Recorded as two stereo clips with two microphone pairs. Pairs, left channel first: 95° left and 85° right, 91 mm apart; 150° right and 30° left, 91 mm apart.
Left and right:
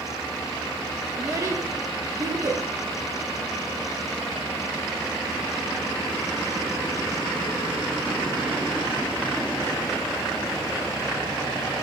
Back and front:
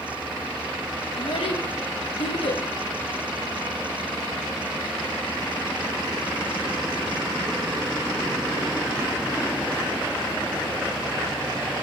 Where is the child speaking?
140° right, 0.9 m.